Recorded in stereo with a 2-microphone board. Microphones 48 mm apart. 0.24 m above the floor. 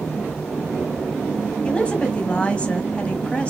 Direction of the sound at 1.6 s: 20° left (ahead or behind).